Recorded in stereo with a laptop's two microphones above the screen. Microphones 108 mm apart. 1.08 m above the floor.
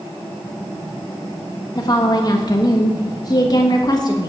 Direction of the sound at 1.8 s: 40° left (ahead or behind).